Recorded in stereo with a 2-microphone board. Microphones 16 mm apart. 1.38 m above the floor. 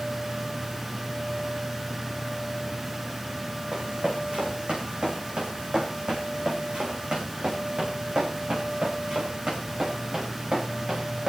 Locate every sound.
3.7 s running footsteps: 75° right (ahead or behind), 6.5 m; by 11.3 s 50° right (ahead or behind), 8 m